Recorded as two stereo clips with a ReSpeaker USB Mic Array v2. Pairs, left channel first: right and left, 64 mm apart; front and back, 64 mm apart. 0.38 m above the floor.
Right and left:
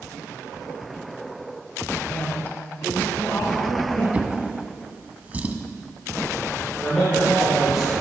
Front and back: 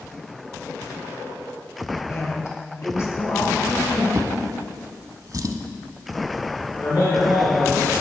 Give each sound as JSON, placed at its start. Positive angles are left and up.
{"t": 2.1, "sound": "a woman speaking", "azimuth_deg": -30, "distance_m": 2.5}
{"t": 4.1, "sound": "a drawer", "azimuth_deg": 155, "distance_m": 0.7}
{"t": 6.8, "sound": "a man speaking", "azimuth_deg": 5, "distance_m": 4.0}